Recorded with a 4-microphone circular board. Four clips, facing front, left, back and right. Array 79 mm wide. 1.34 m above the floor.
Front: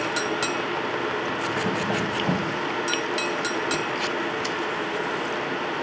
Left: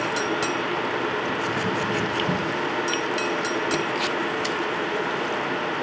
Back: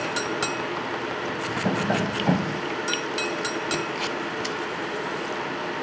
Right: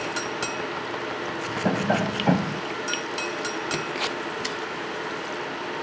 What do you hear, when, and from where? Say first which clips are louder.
1.6 s tapping: right 1 dB, back 1 dB; 110° right